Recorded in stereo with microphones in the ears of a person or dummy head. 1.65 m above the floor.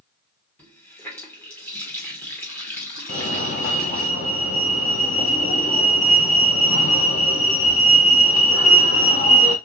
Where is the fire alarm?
40° left (ahead or behind), 1.1 m.